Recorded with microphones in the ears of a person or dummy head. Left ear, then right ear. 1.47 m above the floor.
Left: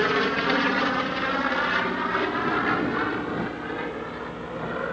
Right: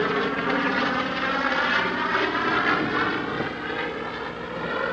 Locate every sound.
0.0 s an aircraft: 15° left (ahead or behind); by 4.9 s 30° right (ahead or behind)